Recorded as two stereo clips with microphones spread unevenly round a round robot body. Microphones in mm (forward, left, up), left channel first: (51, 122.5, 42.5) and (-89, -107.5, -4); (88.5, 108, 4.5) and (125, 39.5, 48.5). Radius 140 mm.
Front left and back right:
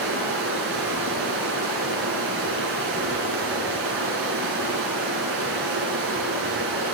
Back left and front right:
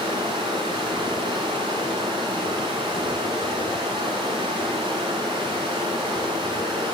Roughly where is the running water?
Right.